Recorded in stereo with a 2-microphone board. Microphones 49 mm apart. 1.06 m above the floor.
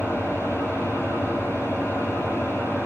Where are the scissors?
No scissors in this recording.